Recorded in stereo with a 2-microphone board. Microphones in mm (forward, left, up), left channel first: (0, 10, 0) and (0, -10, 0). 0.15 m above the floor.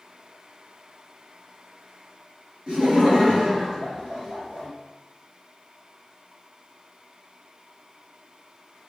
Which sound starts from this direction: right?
Laughter, at 2.7 s.